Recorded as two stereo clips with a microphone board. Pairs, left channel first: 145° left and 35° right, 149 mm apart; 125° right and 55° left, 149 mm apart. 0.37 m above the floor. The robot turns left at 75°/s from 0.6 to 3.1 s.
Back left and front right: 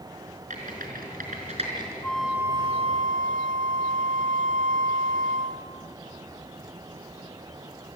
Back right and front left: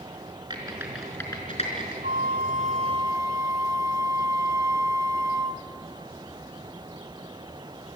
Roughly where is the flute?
Left.